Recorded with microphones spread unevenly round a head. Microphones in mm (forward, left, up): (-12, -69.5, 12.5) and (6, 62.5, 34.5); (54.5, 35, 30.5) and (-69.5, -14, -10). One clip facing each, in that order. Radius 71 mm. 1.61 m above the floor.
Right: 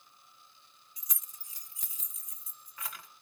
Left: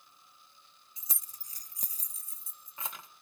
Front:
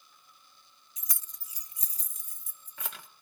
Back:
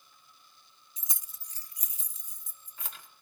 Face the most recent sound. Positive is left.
turn(degrees=15)